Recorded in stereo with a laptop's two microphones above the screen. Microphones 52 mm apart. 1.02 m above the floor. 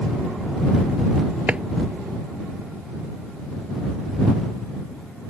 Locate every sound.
1.5 s a drawer: 25° right (ahead or behind)